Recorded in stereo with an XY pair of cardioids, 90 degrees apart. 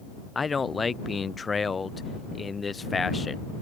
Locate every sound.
0.3 s a man speaking: 30° left